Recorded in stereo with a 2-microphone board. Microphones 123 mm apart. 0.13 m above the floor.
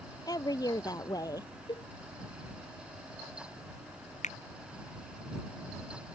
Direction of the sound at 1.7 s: 35° left (ahead or behind).